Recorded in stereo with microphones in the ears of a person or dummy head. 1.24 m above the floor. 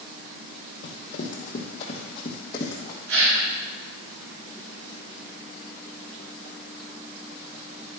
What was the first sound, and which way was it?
Running footsteps, 50° left (ahead or behind).